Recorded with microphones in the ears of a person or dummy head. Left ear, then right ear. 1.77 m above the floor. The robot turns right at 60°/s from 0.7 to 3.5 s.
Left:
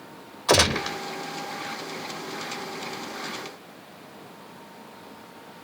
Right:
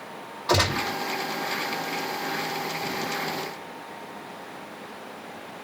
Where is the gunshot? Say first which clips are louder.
Left 3 dB; 60° left (ahead or behind), 1.3 m.